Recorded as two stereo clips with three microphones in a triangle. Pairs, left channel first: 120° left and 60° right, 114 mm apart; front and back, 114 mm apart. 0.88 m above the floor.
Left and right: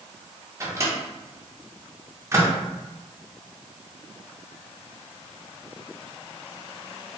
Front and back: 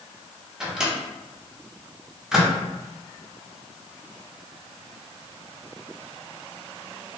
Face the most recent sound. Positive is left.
turn(degrees=-100)